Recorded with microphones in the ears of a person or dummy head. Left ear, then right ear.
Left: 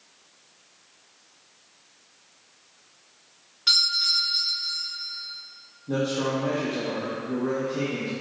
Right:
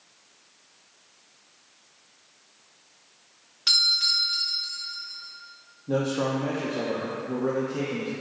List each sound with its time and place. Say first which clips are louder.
3.7 s a doorbell: even; 20° right (ahead or behind), 1.7 m
5.9 s a man speaking: even; 20° right (ahead or behind), 0.6 m